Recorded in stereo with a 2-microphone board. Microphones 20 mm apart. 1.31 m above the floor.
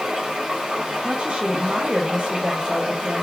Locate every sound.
0.0 s running water: 70° right (ahead or behind), 1.6 m
1.0 s a woman speaking: 75° right (ahead or behind), 0.5 m